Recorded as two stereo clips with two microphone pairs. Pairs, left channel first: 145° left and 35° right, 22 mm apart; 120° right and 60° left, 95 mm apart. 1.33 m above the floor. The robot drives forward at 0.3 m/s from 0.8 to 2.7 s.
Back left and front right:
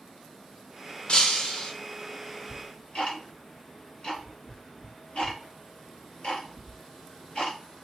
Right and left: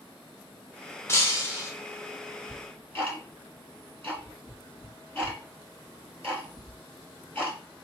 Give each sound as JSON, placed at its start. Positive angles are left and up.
{"t": 1.1, "sound": "breaking glass", "azimuth_deg": 180, "distance_m": 0.9}
{"t": 2.5, "sound": "ticking", "azimuth_deg": 175, "distance_m": 3.0}